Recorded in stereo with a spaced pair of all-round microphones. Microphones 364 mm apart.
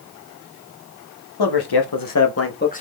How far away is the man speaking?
About 0.7 m.